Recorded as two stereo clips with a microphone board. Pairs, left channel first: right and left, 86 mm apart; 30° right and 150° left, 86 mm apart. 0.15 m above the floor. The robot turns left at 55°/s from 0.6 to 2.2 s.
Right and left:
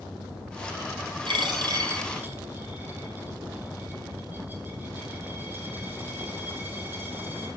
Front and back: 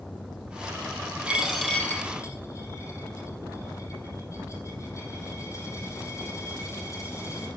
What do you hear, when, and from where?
1.3 s a dropped coin: 75° left, 2.5 m; by 7.5 s 25° left, 2.5 m